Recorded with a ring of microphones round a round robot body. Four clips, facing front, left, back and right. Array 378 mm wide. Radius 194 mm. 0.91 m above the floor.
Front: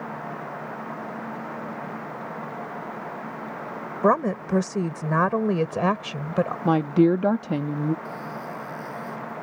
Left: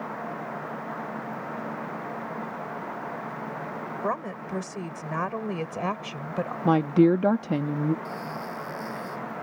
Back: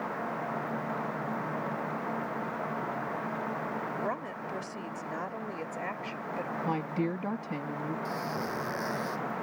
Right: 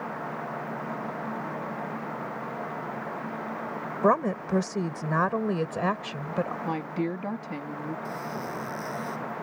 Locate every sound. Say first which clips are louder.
4.0 s a woman speaking: right 8 dB, front 13 dB; 25° right; by 6.5 s straight ahead
6.7 s a woman speaking: left 10 dB, front 14 dB; 45° left
8.1 s a squeak: even, even; 155° right